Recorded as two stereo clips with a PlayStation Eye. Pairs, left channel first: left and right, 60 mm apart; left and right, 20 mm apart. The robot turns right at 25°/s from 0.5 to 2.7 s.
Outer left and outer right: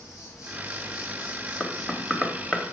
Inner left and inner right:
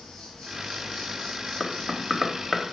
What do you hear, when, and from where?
0.0 s an insect: 65° left, 4.5 m; by 2.7 s 120° left, 4.5 m
1.6 s knocking: 15° left (ahead or behind), 0.9 m